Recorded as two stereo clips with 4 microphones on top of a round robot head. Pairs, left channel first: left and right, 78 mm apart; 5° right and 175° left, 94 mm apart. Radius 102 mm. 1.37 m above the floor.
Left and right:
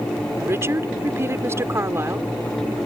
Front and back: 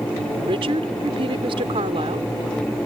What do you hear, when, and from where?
0.4 s a woman speaking: 150° right